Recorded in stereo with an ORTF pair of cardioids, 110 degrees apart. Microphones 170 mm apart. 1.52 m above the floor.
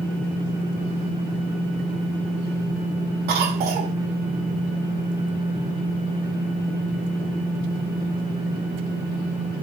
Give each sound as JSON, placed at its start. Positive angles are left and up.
{"t": 3.3, "sound": "a cough", "azimuth_deg": -70, "distance_m": 0.9}